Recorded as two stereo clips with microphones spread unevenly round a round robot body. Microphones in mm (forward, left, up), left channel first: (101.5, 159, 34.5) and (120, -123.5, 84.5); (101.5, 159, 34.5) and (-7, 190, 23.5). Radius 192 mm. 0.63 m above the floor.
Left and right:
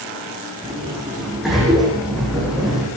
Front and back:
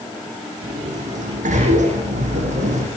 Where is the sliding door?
175° right, 6.5 m.